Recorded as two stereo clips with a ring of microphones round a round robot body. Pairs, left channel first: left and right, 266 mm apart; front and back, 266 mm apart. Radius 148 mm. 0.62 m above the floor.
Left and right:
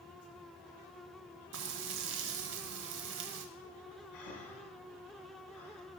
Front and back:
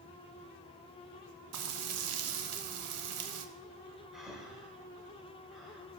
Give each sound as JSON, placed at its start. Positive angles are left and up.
{"t": 1.5, "sound": "frying", "azimuth_deg": -140, "distance_m": 0.7}
{"t": 4.1, "sound": "breathing", "azimuth_deg": 90, "distance_m": 2.5}